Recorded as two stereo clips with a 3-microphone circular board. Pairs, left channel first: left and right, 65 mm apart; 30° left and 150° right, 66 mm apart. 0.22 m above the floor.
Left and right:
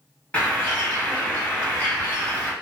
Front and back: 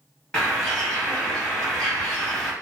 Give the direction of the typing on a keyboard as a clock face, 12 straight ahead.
No typing on a keyboard in this recording.